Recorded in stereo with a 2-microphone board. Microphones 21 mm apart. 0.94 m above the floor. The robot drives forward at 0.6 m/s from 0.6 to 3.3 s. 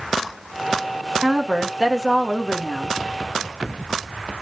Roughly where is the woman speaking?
Right.